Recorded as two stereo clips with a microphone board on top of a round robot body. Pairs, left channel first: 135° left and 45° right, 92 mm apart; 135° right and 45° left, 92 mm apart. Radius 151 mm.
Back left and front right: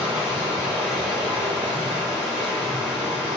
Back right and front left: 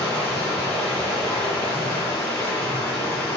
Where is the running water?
70° right, 1.0 m.